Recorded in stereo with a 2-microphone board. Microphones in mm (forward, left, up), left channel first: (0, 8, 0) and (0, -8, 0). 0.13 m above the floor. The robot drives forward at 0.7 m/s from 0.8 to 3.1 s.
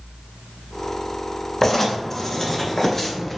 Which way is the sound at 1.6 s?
25° left (ahead or behind).